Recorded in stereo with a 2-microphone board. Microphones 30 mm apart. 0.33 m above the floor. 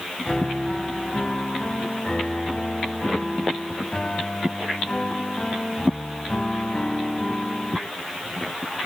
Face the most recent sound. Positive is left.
turn(degrees=30)  # may be behind; listen again after turning